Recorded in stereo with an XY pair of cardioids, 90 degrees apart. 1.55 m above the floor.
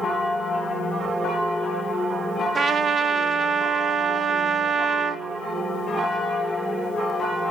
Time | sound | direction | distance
2.5 | a trumpet | 45° right | 2 m